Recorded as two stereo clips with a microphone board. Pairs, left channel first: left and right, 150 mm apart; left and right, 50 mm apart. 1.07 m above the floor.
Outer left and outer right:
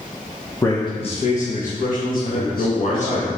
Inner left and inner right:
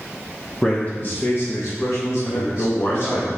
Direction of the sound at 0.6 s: 15° left (ahead or behind).